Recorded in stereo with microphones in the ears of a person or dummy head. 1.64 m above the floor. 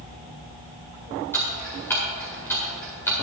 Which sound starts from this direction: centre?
Ticking, at 1.3 s.